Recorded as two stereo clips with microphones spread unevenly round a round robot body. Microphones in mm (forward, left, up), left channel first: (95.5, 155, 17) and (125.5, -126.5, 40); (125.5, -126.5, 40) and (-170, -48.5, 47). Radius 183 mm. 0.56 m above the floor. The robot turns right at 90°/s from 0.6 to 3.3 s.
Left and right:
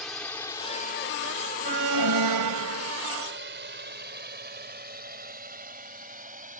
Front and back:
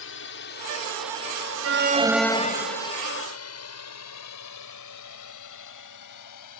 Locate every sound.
0.0 s a drone: 10° left; by 6.6 s 20° right
1.6 s an alarm: 155° right; by 2.9 s 40° right